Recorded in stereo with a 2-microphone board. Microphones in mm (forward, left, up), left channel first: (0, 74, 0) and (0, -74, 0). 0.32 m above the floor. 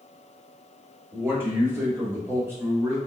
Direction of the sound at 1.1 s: 15° right (ahead or behind).